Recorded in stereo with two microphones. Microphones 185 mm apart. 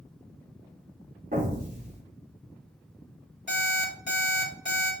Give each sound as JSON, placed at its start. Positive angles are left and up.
{"t": 1.3, "sound": "an explosion", "side_deg": -50, "distance_m": 0.9}
{"t": 3.5, "sound": "an alarm clock", "side_deg": -85, "distance_m": 1.3}